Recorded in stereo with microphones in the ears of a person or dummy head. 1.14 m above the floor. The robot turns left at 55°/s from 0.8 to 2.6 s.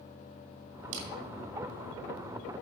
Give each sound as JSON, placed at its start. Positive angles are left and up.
{"t": 0.9, "sound": "a camera shutter", "side_deg": -70, "distance_m": 3.0}